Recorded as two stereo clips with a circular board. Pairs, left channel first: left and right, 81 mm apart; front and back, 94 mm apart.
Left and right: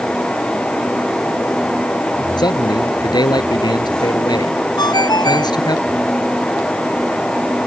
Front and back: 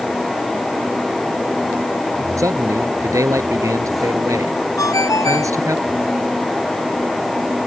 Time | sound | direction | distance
2.4 | a man speaking | 120° left | ?
4.8 | a ringtone | 55° left | ?